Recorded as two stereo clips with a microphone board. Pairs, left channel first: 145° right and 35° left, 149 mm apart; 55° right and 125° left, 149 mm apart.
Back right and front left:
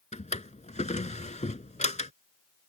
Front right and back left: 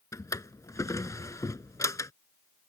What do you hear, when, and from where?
0.1 s a drawer: 120° right